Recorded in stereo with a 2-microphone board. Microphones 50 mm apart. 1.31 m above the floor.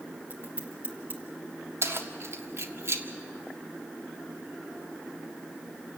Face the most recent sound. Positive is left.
turn(degrees=-65)  # may be behind; listen again after turning